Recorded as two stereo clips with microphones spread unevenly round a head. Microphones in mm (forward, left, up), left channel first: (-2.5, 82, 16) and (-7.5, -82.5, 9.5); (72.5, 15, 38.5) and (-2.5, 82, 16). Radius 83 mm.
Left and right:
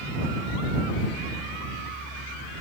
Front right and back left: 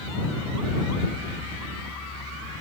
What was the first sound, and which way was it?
Only background noise.